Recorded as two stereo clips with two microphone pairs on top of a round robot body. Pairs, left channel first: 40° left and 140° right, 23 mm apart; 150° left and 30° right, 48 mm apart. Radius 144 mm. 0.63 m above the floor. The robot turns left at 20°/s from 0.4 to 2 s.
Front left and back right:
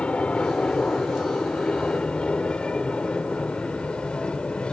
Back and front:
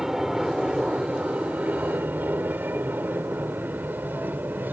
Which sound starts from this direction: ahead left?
An aircraft, at 0.0 s.